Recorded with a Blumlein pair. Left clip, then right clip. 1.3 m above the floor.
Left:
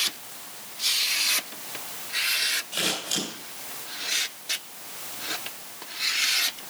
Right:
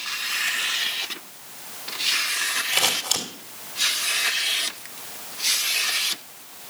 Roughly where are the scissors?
Ahead right.